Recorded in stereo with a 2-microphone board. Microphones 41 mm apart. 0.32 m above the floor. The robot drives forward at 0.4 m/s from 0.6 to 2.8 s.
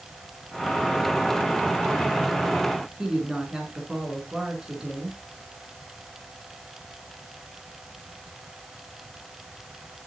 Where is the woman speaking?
15° right (ahead or behind), 4 m.